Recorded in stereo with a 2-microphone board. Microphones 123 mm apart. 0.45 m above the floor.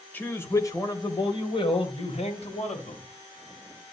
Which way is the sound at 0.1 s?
15° left (ahead or behind).